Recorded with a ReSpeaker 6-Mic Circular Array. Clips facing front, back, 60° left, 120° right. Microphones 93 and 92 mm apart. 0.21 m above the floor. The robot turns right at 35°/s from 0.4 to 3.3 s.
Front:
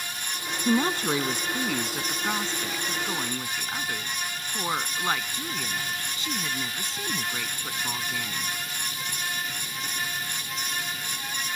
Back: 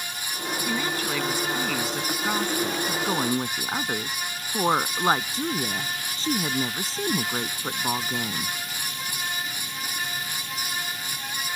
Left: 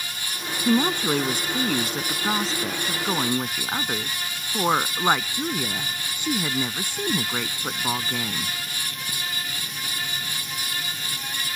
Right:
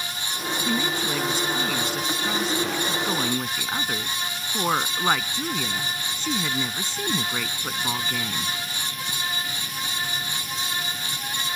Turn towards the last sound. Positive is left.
turn(degrees=135)